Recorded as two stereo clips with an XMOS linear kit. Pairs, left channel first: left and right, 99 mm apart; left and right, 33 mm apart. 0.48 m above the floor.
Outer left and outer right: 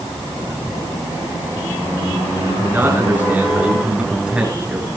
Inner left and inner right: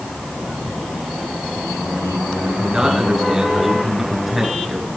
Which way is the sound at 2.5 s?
20° right (ahead or behind).